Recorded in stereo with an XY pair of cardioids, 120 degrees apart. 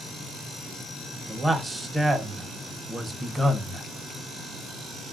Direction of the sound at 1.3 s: 20° right.